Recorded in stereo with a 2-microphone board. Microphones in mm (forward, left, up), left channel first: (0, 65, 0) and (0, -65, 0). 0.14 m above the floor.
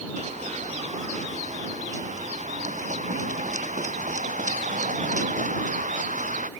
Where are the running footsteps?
65° right (ahead or behind); by 6.5 s 80° right.